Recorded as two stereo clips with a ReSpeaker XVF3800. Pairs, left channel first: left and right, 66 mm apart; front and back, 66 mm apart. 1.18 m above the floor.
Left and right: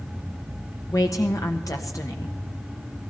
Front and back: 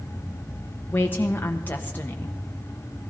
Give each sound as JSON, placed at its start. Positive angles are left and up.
{"t": 0.9, "sound": "a woman speaking", "azimuth_deg": 60, "distance_m": 1.0}